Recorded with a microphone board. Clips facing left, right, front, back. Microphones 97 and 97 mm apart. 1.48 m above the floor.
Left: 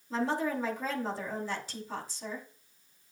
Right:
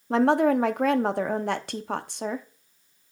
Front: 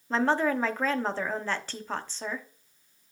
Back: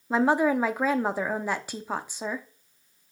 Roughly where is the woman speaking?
Right.